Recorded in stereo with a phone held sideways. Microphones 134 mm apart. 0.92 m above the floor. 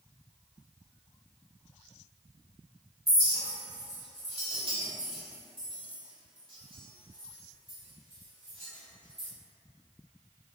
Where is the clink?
45° right (ahead or behind), 1.1 m.